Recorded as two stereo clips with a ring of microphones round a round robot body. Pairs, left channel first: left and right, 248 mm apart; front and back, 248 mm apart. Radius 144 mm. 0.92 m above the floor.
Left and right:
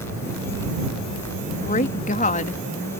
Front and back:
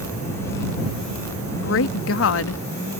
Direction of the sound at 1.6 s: 30° left.